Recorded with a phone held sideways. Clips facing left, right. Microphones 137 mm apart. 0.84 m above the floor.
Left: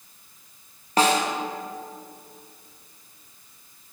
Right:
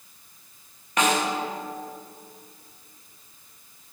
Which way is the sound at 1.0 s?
35° left (ahead or behind).